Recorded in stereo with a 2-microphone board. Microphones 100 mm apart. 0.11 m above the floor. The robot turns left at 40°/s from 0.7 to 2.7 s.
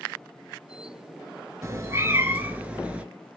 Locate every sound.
1.6 s a cat meowing: 115° right, 0.6 m; by 3.0 s 155° right, 0.6 m